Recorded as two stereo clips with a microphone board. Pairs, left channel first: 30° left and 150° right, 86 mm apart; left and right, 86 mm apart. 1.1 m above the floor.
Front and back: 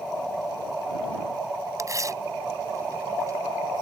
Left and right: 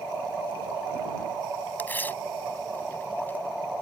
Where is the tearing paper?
160° left.